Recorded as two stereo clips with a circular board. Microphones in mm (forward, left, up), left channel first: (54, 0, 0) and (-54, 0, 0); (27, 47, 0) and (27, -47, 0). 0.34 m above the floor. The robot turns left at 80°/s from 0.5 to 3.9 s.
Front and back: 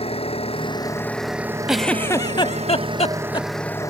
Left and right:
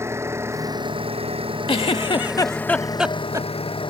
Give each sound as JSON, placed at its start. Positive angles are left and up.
{"t": 0.0, "sound": "an engine running", "azimuth_deg": -30}
{"t": 1.7, "sound": "a giggle", "azimuth_deg": 95}